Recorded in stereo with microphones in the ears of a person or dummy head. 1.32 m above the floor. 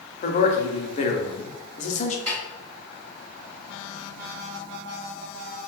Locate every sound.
0.2 s a man speaking: 40° left (ahead or behind), 0.6 m
2.3 s a snare drum: 45° right (ahead or behind), 1.9 m